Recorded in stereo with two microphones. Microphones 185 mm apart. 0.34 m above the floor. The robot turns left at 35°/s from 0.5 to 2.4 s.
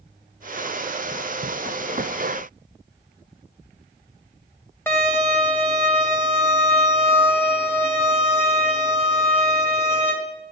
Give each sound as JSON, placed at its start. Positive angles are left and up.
{"t": 4.9, "sound": "a violin", "side_deg": 10, "distance_m": 1.6}